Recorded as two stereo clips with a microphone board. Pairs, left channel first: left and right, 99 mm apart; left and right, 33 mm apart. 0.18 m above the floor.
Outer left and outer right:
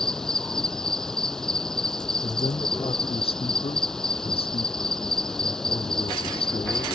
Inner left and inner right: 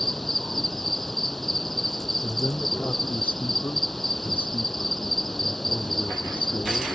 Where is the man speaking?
80° left.